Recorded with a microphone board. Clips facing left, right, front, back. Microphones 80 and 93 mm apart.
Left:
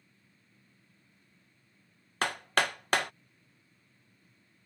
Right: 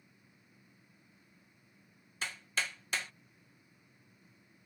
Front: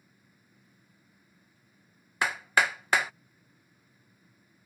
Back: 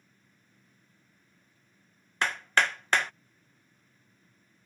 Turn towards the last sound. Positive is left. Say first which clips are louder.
# left 9 dB, front 1 dB
turn(degrees=85)